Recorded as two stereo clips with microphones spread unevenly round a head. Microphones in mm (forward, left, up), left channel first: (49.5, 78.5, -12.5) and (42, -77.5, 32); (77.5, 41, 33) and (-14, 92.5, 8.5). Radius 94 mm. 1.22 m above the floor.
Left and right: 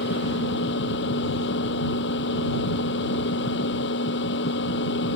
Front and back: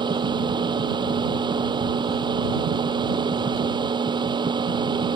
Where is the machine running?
105° left.